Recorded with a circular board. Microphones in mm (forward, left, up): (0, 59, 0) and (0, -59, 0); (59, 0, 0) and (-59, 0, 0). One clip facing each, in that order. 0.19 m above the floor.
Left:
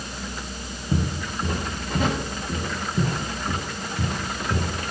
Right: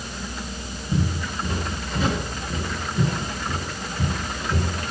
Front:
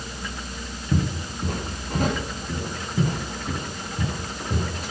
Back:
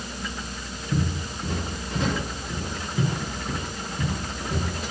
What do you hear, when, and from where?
0.9 s footsteps: 40° left, 3 m; by 4.7 s 50° left, 5.5 m